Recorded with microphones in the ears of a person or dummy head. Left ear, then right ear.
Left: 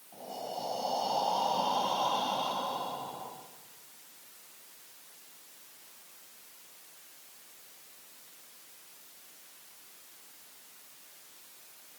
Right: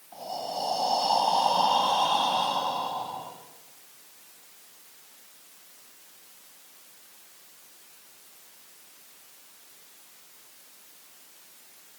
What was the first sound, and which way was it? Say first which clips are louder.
Breathing: right 6 dB; 75° right (ahead or behind).